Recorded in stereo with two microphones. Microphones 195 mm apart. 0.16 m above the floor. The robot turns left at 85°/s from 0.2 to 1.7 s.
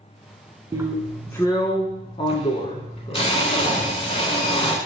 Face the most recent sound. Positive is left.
turn(degrees=130)